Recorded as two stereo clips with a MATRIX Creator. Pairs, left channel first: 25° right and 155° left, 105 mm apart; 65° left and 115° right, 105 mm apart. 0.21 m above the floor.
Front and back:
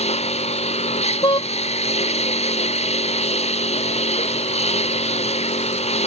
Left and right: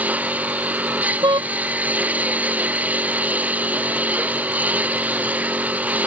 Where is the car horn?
65° right.